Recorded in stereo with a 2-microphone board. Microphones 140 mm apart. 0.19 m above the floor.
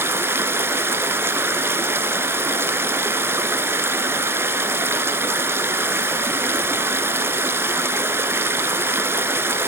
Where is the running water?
15° right (ahead or behind), 0.9 m.